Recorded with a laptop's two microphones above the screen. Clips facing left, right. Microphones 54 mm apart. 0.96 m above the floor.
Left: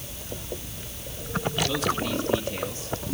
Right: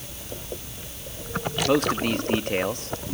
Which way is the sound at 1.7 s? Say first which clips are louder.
Right 5 dB; 50° right (ahead or behind).